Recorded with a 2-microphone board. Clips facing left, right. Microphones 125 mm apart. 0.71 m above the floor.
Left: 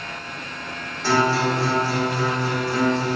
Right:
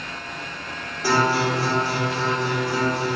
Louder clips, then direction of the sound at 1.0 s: Left 1 dB; 15° right (ahead or behind).